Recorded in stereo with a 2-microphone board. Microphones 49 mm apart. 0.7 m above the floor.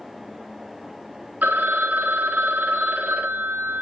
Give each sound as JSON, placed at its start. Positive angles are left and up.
{"t": 1.4, "sound": "a phone ringing", "side_deg": -40, "distance_m": 0.9}